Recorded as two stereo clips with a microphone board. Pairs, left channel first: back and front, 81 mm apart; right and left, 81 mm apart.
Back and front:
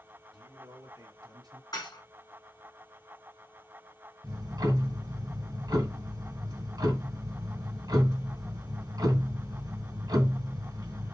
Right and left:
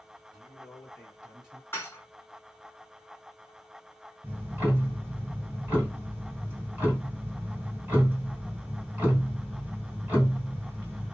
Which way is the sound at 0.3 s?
Straight ahead.